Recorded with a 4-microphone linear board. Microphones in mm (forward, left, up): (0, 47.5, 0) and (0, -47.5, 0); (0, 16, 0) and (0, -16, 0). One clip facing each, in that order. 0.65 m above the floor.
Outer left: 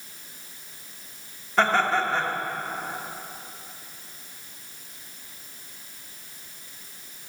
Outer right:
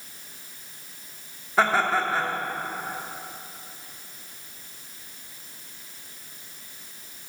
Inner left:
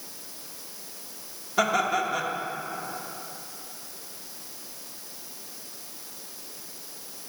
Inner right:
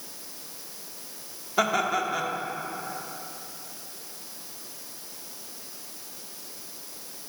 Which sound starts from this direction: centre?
Laughter, at 1.6 s.